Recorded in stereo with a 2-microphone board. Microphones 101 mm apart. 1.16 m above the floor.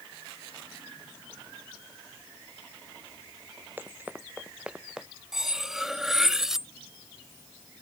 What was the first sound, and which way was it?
Running footsteps, 20° right (ahead or behind).